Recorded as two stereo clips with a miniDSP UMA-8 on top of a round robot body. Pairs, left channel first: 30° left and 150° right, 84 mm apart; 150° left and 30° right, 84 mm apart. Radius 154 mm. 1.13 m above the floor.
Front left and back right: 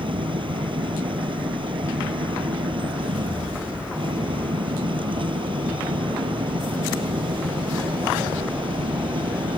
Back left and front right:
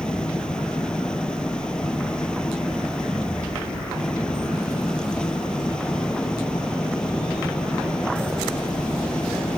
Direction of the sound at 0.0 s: 130° right.